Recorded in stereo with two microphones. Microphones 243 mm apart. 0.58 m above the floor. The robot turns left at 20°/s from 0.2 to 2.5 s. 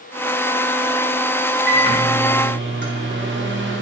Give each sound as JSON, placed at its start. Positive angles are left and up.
{"t": 1.7, "sound": "a microwave", "side_deg": -45, "distance_m": 0.6}